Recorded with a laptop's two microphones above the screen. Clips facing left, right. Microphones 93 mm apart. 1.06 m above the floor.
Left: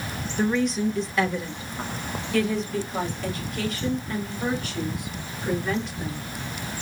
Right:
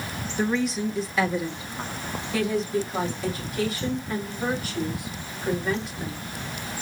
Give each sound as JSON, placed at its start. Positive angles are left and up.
{"t": 0.4, "sound": "a woman speaking", "side_deg": 0, "distance_m": 0.6}